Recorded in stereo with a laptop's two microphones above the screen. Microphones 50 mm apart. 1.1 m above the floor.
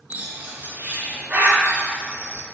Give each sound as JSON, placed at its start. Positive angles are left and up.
{"t": 0.1, "sound": "a bird", "side_deg": -35, "distance_m": 1.5}